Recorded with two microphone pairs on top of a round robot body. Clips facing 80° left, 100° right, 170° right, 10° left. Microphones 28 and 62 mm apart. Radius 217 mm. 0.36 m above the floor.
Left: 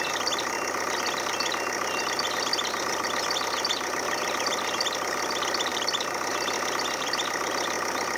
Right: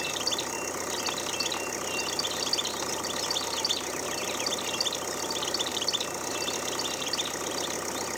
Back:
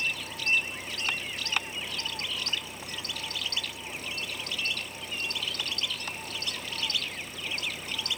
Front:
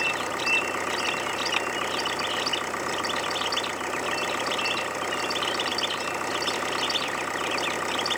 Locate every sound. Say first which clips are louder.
0.0 s an engine running: left 3 dB, front 6 dB; 30° left